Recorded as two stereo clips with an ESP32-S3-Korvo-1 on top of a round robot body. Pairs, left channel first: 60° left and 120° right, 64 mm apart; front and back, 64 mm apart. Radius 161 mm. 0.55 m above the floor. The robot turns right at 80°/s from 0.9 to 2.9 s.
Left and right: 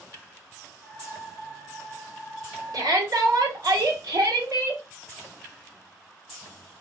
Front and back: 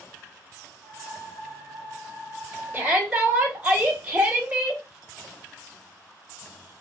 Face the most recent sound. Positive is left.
turn(degrees=-110)